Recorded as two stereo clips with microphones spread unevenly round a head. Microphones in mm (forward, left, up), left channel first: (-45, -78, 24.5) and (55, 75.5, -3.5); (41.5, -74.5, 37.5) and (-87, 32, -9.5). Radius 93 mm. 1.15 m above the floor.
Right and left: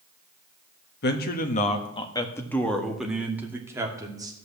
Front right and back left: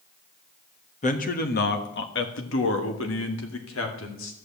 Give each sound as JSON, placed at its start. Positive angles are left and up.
{"t": 1.0, "sound": "a man speaking", "azimuth_deg": -85, "distance_m": 1.5}